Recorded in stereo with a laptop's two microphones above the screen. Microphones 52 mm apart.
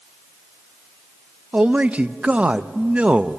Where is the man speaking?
25° right (ahead or behind), 0.6 m.